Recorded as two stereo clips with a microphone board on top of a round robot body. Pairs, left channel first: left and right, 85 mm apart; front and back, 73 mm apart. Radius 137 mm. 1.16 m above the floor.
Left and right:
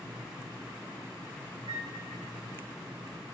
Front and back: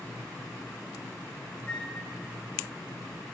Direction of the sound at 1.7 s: 70° right.